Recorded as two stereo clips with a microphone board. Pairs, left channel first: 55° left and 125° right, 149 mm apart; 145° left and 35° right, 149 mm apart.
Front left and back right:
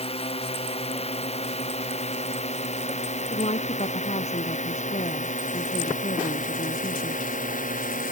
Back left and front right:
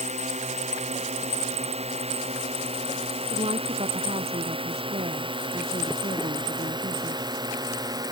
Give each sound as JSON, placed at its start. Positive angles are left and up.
{"t": 0.0, "sound": "a drone", "azimuth_deg": 5}
{"t": 3.3, "sound": "a woman speaking", "azimuth_deg": 15}